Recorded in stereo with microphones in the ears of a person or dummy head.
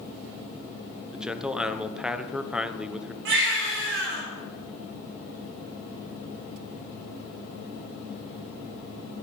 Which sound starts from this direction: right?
A baby crying, at 3.2 s.